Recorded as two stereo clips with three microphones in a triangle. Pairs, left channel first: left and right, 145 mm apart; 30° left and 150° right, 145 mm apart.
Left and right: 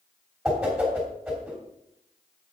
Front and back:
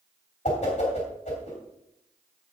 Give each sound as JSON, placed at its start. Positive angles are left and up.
{"t": 0.5, "sound": "a whoosh", "azimuth_deg": -5, "distance_m": 3.0}